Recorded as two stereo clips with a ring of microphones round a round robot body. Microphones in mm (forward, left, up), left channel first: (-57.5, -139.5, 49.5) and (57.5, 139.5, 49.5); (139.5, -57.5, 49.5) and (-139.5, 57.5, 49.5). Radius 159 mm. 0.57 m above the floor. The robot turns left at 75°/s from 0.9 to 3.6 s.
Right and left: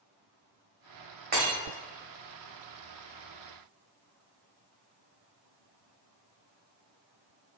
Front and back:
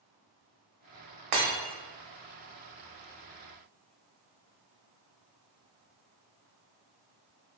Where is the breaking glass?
130° left, 0.9 m; by 1.6 s 115° left, 0.9 m.